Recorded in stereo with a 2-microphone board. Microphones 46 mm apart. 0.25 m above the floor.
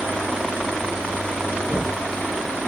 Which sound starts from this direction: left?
Knocking, at 1.7 s.